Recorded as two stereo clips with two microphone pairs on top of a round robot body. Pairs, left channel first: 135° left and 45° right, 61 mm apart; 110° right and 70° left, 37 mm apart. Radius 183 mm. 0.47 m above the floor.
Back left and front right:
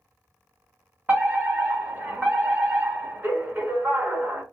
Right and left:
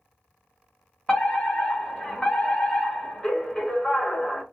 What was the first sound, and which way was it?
A fire alarm, 50° right.